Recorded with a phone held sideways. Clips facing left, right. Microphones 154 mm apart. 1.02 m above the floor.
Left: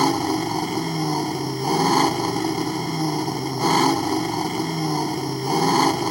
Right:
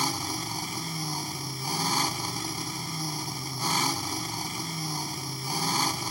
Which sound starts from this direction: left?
An engine running, at 0.0 s.